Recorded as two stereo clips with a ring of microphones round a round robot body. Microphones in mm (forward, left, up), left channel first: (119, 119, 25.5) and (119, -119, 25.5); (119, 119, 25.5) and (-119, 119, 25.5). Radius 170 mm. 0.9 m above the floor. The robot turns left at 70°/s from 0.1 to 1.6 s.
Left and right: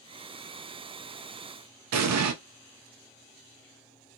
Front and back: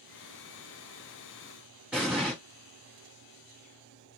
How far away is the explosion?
About 0.5 m.